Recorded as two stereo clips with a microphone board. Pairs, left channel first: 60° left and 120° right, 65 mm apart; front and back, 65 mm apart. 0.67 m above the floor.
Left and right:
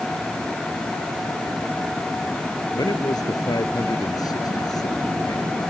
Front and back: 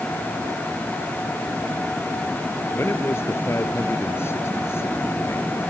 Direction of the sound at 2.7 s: 50° left.